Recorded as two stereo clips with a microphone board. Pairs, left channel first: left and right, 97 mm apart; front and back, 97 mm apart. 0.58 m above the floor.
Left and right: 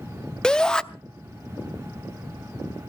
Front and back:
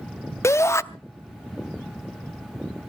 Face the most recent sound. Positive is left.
turn(degrees=15)